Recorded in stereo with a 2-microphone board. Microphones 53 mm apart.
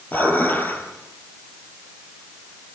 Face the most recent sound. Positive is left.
turn(degrees=35)  # may be behind; listen again after turning